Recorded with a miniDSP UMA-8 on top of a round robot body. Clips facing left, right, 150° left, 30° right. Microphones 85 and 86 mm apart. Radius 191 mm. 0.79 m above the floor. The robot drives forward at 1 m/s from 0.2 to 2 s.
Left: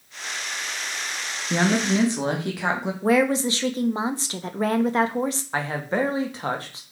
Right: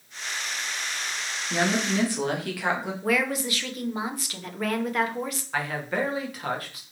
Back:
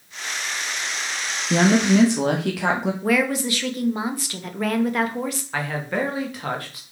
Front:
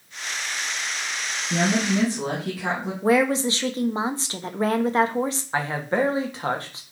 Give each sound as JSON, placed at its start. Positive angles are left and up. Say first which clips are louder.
{"t": 1.5, "sound": "a woman speaking", "louder": "left 4 dB, back 6 dB", "azimuth_deg": 150, "distance_m": 1.5}
{"t": 3.0, "sound": "a woman speaking", "louder": "left 7 dB, front 4 dB", "azimuth_deg": 30, "distance_m": 1.1}
{"t": 5.5, "sound": "a man speaking", "louder": "left 1 dB, front 2 dB", "azimuth_deg": 30, "distance_m": 1.8}